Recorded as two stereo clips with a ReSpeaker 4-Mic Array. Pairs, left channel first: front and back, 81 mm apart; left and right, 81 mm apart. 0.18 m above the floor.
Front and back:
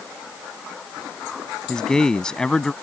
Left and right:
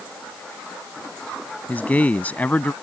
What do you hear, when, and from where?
1.7 s a man speaking: 65° left